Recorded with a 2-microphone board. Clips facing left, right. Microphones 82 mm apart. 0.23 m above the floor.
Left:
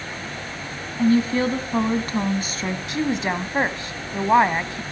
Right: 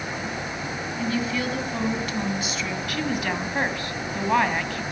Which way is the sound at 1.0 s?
40° left (ahead or behind).